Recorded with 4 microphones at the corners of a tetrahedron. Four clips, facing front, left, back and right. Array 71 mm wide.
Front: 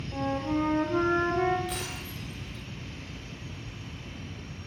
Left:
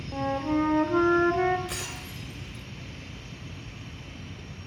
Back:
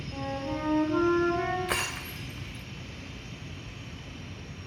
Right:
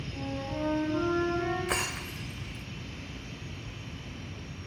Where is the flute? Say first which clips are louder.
Left 10 dB, front 5 dB; 80° left, 2.5 m.